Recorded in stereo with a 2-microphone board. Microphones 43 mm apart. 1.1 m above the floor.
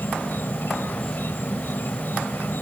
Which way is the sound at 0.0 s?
55° left (ahead or behind).